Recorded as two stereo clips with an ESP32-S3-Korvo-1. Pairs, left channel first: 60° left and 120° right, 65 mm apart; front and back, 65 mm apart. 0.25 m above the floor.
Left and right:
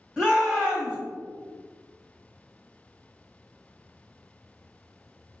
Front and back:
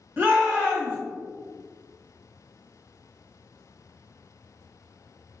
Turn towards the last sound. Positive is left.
turn(degrees=160)